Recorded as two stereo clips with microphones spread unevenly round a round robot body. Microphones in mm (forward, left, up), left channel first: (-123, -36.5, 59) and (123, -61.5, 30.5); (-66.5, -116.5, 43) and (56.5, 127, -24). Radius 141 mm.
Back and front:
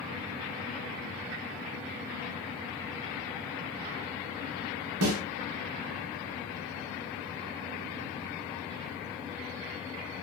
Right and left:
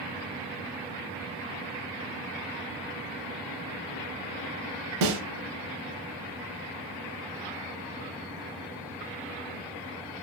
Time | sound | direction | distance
5.0 | a snare drum | 35° left | 0.6 m